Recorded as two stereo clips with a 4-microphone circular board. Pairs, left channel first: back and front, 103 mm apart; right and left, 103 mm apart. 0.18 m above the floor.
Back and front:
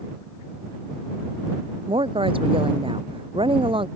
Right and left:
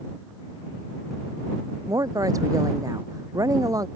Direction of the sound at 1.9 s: 35° left.